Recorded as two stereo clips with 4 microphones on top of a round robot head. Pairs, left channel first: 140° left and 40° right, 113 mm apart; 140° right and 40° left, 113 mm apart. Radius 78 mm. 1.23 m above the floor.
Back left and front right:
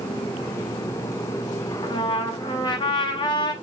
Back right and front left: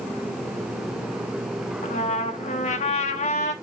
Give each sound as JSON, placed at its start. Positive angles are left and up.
{"t": 1.8, "sound": "a trumpet", "azimuth_deg": -165, "distance_m": 0.9}